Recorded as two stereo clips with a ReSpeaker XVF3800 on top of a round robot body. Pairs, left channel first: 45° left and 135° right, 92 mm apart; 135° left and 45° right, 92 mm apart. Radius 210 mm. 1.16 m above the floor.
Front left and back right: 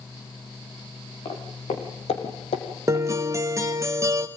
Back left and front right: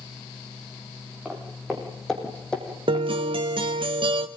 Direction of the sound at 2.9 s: 75° right.